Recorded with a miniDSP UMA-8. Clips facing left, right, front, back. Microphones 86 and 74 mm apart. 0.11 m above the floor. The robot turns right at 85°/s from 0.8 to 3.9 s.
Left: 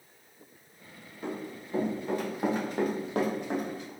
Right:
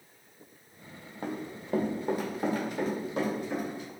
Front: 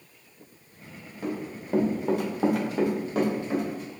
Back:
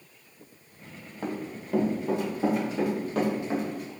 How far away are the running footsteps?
About 1.2 m.